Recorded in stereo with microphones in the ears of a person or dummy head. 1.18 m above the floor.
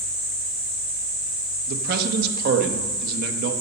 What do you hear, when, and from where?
1.7 s a man speaking: 55° right (ahead or behind), 1.0 m